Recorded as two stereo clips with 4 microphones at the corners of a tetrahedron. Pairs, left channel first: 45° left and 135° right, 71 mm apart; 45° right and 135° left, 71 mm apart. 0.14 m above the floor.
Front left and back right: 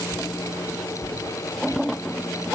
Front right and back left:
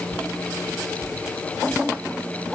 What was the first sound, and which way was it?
Only background noise.